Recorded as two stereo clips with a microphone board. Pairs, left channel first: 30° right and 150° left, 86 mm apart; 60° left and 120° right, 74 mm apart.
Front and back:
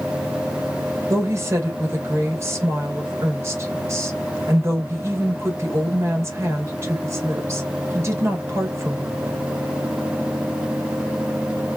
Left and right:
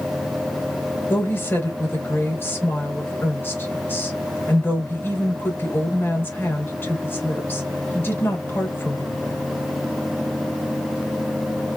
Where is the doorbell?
No doorbell in this recording.